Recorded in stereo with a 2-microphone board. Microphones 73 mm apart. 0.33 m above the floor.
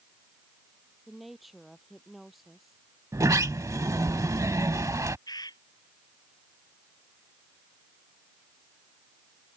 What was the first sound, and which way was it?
A woman speaking, centre (ahead or behind).